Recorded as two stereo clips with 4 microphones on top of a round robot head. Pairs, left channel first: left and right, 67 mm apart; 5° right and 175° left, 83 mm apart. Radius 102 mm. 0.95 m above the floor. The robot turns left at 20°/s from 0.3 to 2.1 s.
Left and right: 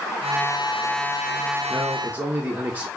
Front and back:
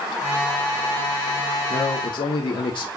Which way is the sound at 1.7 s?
15° right.